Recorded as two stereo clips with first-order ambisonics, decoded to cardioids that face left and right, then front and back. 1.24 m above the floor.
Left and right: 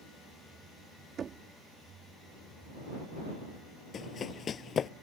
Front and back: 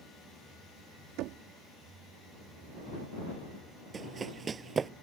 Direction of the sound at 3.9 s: 130° left.